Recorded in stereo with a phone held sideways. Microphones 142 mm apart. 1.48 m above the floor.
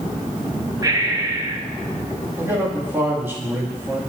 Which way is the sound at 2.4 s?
15° right (ahead or behind).